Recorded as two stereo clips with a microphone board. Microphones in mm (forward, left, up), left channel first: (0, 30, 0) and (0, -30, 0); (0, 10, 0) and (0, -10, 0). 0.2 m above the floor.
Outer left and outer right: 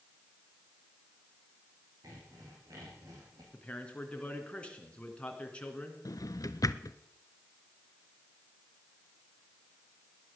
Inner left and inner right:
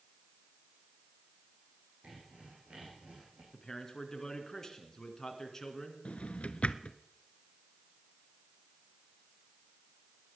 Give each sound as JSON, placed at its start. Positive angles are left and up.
{"t": 2.0, "sound": "sawing", "side_deg": -75, "distance_m": 6.0}
{"t": 3.5, "sound": "a man speaking", "side_deg": 20, "distance_m": 2.5}
{"t": 6.0, "sound": "a drawer", "side_deg": 75, "distance_m": 0.6}